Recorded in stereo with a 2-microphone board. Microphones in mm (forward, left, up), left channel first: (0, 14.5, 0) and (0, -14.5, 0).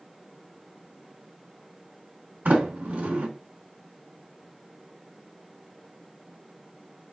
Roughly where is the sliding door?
Right.